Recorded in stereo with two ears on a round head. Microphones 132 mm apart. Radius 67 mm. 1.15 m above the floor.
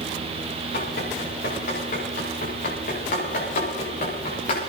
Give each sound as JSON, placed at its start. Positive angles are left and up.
{"t": 0.7, "sound": "running footsteps", "side_deg": 70, "distance_m": 7.5}